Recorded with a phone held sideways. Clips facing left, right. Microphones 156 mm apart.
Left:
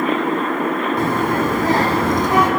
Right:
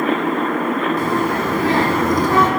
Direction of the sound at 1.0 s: 60° left (ahead or behind).